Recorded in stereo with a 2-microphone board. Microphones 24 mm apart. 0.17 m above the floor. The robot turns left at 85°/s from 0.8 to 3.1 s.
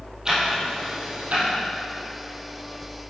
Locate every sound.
0.2 s ticking: 30° right (ahead or behind), 3 m; by 1.5 s 75° right (ahead or behind), 3 m